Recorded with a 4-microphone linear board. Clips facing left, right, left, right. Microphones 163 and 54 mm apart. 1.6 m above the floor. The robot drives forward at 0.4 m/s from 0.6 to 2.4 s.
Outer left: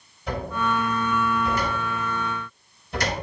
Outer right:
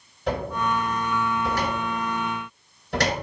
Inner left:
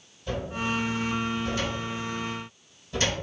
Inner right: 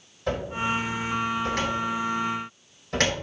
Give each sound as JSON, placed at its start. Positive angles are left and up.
{"t": 0.3, "sound": "a cupboard door", "side_deg": -70, "distance_m": 3.0}